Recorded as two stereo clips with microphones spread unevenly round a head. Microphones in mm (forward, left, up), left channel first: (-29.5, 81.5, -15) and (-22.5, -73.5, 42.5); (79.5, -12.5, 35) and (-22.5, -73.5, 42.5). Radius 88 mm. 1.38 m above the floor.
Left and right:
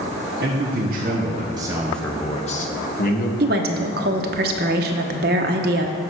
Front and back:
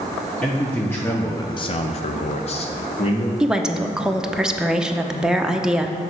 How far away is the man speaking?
About 1.4 m.